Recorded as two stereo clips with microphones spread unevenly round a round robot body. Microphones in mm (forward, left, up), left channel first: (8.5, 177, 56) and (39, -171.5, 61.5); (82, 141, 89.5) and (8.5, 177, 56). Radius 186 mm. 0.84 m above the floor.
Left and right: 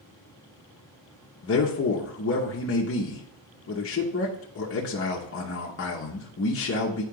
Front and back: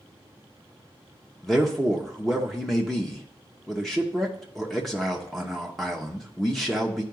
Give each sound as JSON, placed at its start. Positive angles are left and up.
{"t": 1.4, "sound": "a man speaking", "azimuth_deg": 95, "distance_m": 0.9}